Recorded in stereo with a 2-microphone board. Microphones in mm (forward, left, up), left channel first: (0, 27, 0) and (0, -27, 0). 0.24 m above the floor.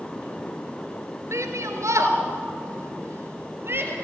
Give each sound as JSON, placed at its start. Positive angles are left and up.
{"t": 1.3, "sound": "a shout", "side_deg": -70, "distance_m": 3.5}